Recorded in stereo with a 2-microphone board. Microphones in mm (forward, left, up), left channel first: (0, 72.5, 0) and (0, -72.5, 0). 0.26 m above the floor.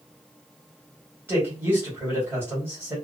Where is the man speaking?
15° right (ahead or behind), 1.4 m.